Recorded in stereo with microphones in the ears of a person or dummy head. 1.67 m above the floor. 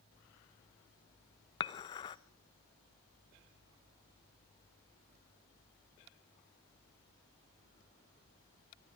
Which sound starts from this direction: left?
Dishes clattering, at 1.6 s.